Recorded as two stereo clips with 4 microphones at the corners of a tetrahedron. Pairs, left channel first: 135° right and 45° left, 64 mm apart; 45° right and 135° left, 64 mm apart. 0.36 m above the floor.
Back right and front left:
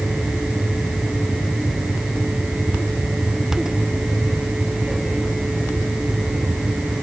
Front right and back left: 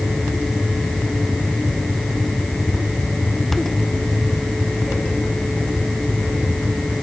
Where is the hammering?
I don't hear hammering.